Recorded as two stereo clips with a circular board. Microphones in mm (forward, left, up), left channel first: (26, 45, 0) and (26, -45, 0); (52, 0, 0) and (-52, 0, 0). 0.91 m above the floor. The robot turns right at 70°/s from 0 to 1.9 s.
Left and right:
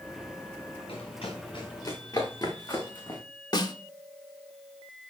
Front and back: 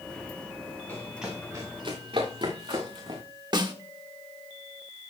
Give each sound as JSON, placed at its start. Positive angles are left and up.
{"t": 0.9, "sound": "running footsteps", "azimuth_deg": 75, "distance_m": 5.5}
{"t": 3.5, "sound": "a snare drum", "azimuth_deg": 135, "distance_m": 1.2}